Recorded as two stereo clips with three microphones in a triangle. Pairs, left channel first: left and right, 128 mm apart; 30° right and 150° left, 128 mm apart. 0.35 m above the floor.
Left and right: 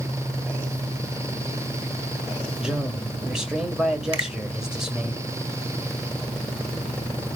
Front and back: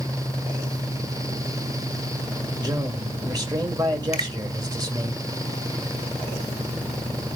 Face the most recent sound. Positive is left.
turn(degrees=-50)